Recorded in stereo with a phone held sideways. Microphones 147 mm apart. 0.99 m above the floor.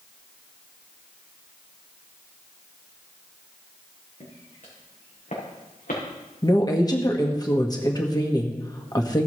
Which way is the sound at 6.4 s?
25° left (ahead or behind).